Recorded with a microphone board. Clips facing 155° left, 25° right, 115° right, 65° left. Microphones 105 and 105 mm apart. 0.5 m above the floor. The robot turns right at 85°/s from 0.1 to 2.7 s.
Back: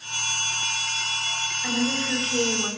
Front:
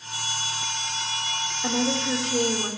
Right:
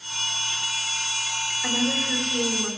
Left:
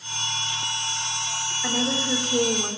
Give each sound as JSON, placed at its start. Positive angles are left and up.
{"t": 1.6, "sound": "a woman speaking", "azimuth_deg": -15, "distance_m": 1.6}